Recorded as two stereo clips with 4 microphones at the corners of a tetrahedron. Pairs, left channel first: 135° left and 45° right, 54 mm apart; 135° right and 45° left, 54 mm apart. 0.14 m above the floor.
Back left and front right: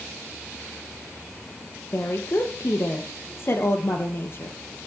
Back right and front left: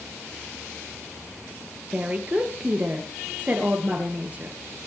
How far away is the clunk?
No clunk in this recording.